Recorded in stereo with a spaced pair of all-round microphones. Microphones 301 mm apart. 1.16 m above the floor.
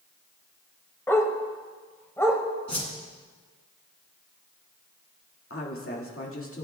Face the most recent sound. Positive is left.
turn(degrees=50)  # may be behind; listen again after turning